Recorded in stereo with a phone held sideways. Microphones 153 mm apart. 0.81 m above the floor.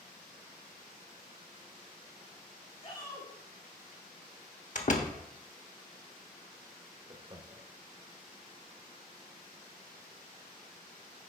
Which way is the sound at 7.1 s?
30° right (ahead or behind).